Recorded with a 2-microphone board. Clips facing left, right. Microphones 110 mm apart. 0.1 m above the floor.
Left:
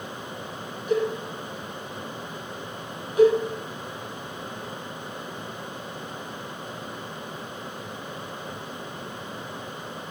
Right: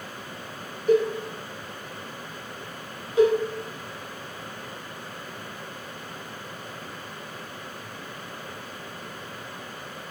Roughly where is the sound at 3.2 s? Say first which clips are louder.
Left 2 dB; right.